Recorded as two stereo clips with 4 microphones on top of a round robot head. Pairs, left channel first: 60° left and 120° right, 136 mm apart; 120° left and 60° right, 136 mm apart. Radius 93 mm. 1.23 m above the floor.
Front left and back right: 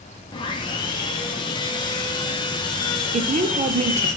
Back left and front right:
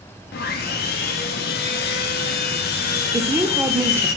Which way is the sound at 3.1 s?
125° right.